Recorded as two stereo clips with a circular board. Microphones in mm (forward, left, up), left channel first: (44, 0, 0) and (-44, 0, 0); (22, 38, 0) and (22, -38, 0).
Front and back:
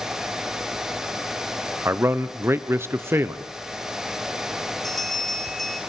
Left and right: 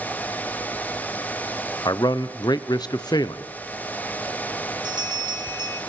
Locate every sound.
1.9 s a man speaking: 120° left, 0.8 m
4.8 s a bell: 85° right, 3 m